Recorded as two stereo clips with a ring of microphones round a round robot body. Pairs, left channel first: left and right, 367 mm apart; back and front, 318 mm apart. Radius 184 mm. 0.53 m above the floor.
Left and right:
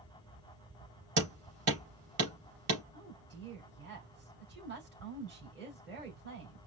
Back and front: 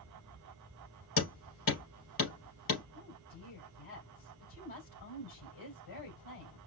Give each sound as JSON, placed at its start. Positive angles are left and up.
{"t": 1.2, "sound": "hammering", "azimuth_deg": -140, "distance_m": 3.0}
{"t": 2.9, "sound": "a woman speaking", "azimuth_deg": -150, "distance_m": 3.0}